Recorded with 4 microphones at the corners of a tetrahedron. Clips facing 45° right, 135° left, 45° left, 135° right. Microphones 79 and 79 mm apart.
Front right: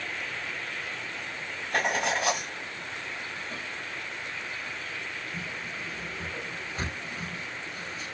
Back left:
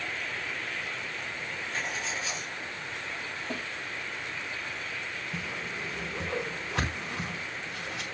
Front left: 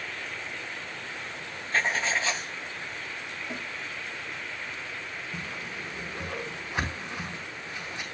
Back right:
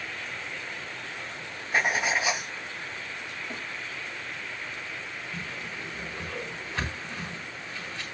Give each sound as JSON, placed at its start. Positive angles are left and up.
{"t": 1.7, "sound": "writing", "azimuth_deg": -60, "distance_m": 1.0}
{"t": 3.5, "sound": "a snare drum", "azimuth_deg": 125, "distance_m": 4.0}
{"t": 5.3, "sound": "a whoosh", "azimuth_deg": 120, "distance_m": 5.0}